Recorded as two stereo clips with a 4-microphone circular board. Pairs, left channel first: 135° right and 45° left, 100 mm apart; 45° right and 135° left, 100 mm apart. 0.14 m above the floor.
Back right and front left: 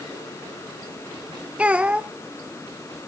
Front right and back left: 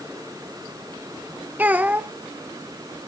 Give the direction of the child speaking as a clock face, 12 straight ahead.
9 o'clock.